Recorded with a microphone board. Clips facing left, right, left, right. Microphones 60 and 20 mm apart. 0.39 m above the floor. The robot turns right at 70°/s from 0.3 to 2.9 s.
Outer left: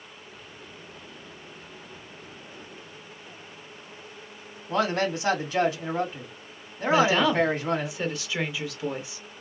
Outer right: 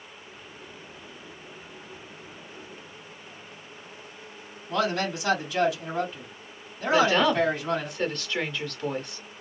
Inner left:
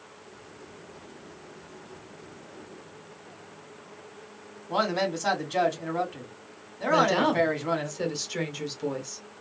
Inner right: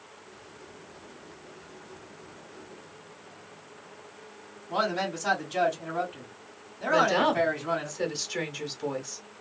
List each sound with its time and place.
4.7 s a man speaking: 40° left (ahead or behind), 2.5 m
6.9 s a woman speaking: 10° left (ahead or behind), 1.1 m